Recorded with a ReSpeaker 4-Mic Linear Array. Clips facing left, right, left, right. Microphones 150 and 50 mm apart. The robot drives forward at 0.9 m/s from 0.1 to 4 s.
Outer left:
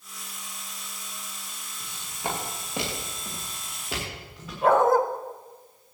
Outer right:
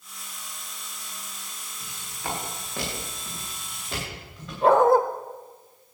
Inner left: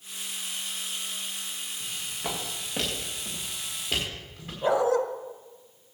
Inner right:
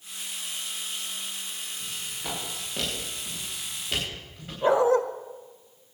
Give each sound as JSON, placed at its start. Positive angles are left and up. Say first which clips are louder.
{"t": 1.8, "sound": "footsteps", "louder": "outer left 3 dB, inner left 3 dB", "side_deg": 25, "distance_m": 6.5}
{"t": 4.6, "sound": "a dog barking", "louder": "outer right 2 dB, inner right 3 dB", "side_deg": -30, "distance_m": 1.4}